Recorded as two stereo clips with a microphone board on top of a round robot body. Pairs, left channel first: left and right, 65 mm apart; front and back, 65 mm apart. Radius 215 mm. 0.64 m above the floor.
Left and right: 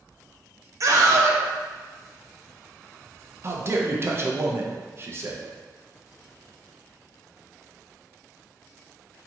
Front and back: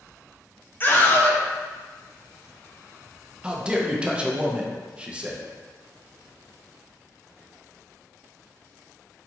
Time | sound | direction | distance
0.8 | a scream | 60° right | 0.9 m
3.4 | a man speaking | 115° right | 0.7 m